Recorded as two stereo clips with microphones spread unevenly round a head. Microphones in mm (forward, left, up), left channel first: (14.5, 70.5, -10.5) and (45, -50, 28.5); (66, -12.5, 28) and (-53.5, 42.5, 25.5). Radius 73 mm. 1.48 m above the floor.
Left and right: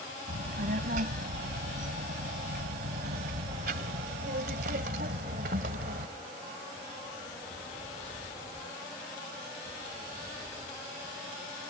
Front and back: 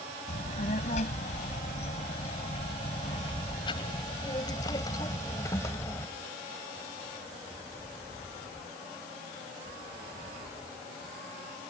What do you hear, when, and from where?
0.3 s a child speaking: 65° right; by 6.1 s 100° right